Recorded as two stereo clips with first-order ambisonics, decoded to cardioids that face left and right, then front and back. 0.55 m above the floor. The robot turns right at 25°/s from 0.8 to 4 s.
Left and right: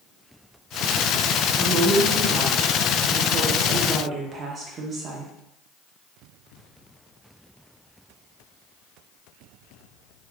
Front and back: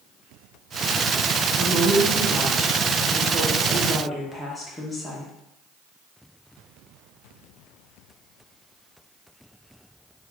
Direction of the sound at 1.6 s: 130° right.